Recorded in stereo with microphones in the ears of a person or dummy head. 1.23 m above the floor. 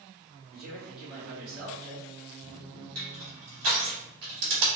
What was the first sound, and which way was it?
A man speaking, 60° right (ahead or behind).